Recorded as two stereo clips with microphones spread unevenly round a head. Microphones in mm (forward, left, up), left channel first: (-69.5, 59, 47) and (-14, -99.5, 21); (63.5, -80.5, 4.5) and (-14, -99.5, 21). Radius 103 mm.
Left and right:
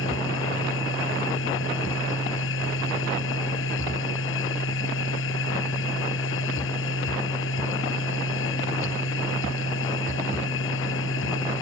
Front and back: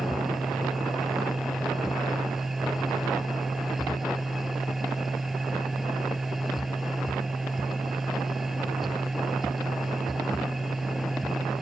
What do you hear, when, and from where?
0.0 s a machine running: 105° left